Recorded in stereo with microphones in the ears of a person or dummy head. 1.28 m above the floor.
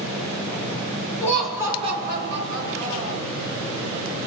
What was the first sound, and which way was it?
Laughter, 15° left (ahead or behind).